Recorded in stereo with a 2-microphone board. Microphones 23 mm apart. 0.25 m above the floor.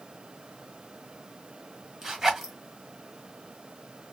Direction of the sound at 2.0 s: 15° right (ahead or behind).